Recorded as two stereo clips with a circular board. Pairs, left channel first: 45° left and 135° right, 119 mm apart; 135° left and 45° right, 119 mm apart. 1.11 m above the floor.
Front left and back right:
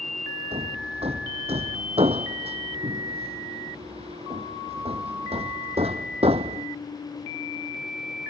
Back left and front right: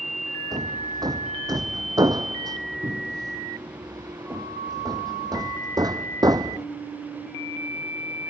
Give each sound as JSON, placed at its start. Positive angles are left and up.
{"t": 0.5, "sound": "hammering", "azimuth_deg": -100}